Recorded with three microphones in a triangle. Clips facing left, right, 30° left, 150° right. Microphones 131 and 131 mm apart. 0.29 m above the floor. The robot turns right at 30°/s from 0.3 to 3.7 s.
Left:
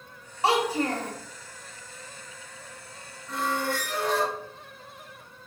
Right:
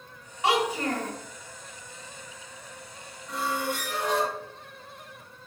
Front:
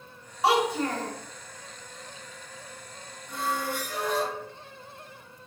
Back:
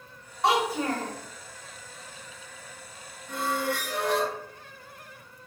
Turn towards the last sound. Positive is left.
turn(degrees=-165)